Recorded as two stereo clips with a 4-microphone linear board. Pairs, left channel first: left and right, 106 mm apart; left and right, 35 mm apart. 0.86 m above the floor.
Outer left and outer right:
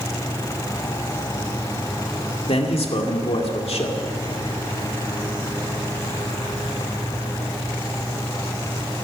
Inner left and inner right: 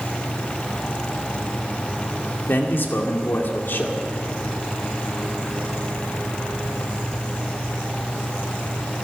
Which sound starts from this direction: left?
A man speaking, at 2.5 s.